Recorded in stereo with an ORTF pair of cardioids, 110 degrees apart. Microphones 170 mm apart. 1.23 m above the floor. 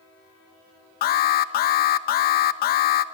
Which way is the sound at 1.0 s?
65° left.